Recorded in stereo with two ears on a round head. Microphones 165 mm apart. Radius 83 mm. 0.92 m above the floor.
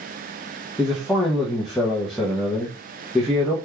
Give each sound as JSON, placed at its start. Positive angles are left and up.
{"t": 0.8, "sound": "a man speaking", "side_deg": 0, "distance_m": 0.6}